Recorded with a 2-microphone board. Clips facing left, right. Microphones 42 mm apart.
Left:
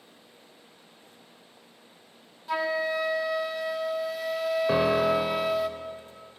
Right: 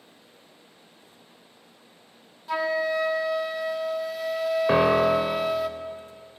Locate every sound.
2.5 s a flute: centre (ahead or behind), 0.6 m
4.7 s a piano: 40° right (ahead or behind), 0.6 m